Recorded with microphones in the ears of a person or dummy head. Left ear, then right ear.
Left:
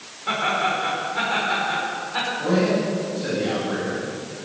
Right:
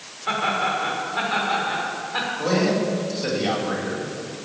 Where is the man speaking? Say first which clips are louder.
Even; 75° right (ahead or behind), 7 m.